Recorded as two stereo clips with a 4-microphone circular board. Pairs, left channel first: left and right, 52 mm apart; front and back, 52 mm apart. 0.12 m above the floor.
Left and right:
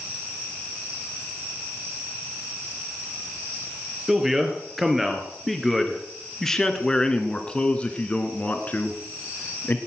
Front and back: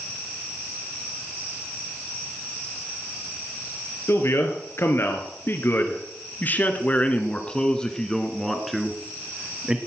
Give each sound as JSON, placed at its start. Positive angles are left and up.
{"t": 4.1, "sound": "a man speaking", "azimuth_deg": -5, "distance_m": 3.0}